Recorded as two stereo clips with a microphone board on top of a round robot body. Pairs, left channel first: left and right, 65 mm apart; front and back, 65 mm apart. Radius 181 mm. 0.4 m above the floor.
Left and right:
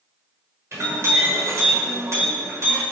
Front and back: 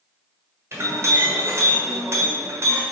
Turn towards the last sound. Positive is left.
turn(degrees=-135)